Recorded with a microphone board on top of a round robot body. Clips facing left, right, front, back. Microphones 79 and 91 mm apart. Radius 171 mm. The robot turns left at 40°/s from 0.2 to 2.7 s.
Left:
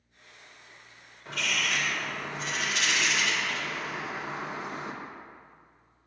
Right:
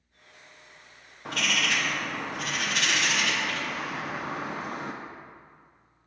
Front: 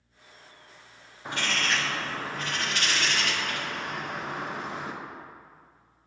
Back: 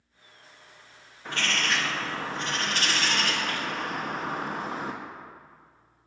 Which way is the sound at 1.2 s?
70° right.